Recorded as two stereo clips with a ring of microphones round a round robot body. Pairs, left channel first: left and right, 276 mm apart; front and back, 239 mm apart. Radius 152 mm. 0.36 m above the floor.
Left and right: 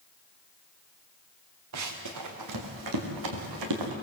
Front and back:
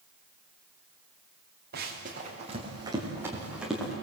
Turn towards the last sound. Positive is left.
turn(degrees=-90)